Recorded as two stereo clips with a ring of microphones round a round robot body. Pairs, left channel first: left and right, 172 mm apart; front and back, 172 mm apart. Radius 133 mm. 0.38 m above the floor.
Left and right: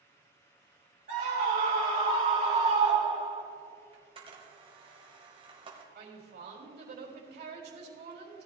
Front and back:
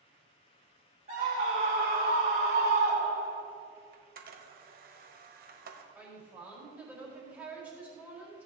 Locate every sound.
1.1 s a scream: 130° right, 2.5 m; by 3.4 s 165° right, 4 m
3.9 s a camera shutter: 150° right, 1.3 m
6.0 s a woman speaking: 100° right, 3 m